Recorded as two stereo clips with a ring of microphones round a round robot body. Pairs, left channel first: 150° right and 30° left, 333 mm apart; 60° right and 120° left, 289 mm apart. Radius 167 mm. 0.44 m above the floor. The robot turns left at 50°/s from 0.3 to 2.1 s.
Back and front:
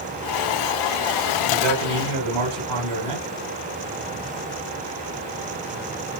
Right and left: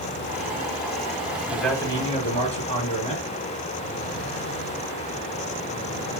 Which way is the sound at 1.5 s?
40° left.